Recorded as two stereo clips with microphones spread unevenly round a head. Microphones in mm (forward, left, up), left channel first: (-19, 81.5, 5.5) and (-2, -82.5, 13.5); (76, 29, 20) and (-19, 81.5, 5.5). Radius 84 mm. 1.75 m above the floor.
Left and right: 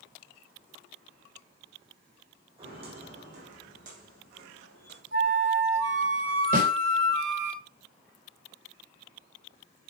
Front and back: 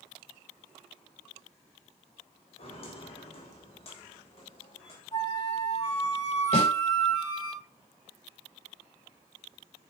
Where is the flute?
90° right, 3 m.